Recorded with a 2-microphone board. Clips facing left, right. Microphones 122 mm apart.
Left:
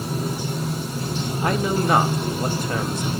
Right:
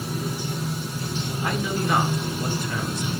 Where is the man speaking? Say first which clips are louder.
Left 5 dB; 50° left (ahead or behind), 0.9 m.